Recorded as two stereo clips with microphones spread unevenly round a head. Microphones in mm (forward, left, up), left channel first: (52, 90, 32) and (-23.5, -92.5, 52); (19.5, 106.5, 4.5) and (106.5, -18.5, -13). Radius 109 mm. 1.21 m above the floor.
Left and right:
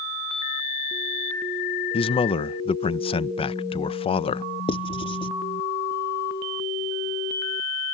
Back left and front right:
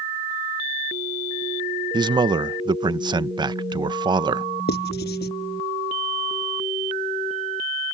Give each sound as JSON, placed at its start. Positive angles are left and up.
{"t": 1.9, "sound": "a man speaking", "azimuth_deg": 5}
{"t": 4.7, "sound": "writing", "azimuth_deg": 135}